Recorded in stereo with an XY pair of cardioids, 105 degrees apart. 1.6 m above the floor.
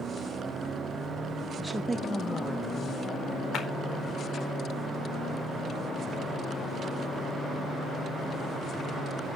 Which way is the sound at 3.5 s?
65° left.